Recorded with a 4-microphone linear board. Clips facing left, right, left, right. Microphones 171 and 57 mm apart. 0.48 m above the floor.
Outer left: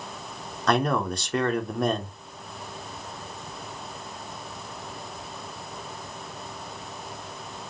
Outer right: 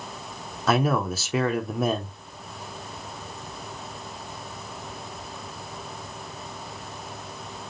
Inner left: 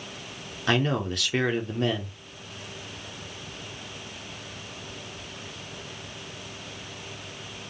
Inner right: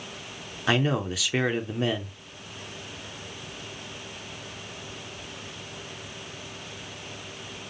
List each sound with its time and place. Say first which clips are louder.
0.7 s a man speaking: outer right 1 dB, even; 5° right (ahead or behind), 0.9 m